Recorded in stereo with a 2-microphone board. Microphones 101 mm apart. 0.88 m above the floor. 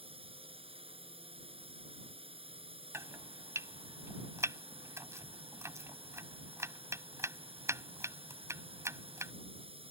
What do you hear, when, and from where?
0.0 s a drone: 75° right (ahead or behind)
2.9 s chopping: 30° right (ahead or behind)